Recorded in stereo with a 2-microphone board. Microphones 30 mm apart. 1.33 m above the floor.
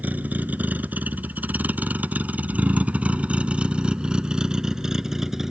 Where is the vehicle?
70° right (ahead or behind); by 5.5 s 15° right (ahead or behind).